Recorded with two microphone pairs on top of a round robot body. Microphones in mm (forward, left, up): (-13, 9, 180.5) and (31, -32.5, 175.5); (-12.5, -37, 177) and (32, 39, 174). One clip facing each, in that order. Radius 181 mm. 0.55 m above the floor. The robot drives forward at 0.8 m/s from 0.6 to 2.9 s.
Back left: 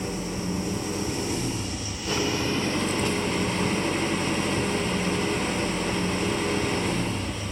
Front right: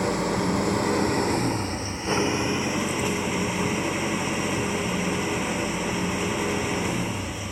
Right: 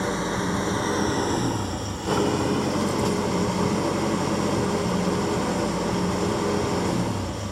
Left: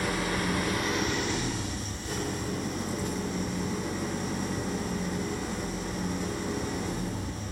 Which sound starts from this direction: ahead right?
An engine running, at 0.0 s.